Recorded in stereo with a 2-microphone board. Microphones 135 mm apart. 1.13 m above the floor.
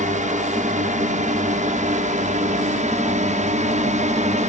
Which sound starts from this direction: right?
A drone, at 0.0 s.